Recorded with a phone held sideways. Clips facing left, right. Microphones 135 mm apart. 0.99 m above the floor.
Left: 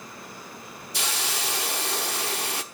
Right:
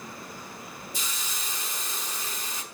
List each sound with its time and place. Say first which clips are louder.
0.9 s a hiss: left 10 dB; 75° left (ahead or behind), 1.1 m